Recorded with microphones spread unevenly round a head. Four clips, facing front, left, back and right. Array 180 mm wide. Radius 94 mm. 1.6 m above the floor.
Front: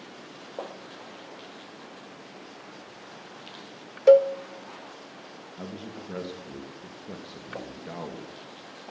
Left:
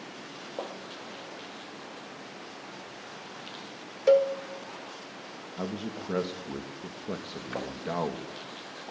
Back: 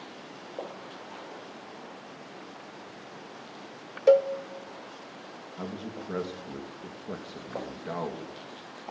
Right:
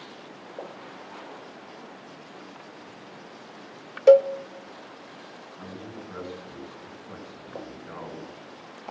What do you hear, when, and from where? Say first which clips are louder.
4.1 s a cowbell: right 6 dB, front 4 dB; 30° right, 0.8 m
5.6 s a man speaking: left 6 dB, back 2 dB; 120° left, 3 m